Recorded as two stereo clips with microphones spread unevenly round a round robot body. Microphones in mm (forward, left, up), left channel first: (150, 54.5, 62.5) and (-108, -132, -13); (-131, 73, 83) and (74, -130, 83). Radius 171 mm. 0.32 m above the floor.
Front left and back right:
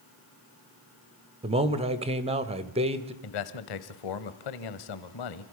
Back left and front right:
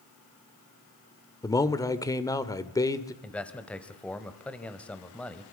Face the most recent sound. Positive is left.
turn(degrees=50)